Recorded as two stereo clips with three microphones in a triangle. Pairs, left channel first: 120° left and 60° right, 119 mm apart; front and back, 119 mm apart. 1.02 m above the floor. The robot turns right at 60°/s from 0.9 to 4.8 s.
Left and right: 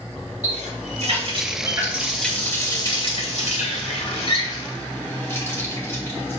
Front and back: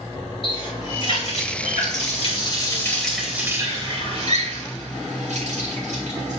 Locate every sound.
0.4 s a running tap: 45° right, 3 m; by 6.4 s 170° right, 3 m